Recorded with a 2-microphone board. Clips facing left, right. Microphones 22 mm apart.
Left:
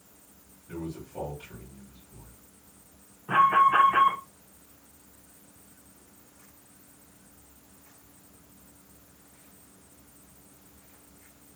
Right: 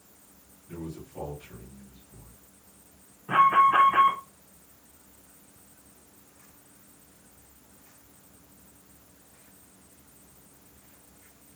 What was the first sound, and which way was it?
A man speaking, 55° left (ahead or behind).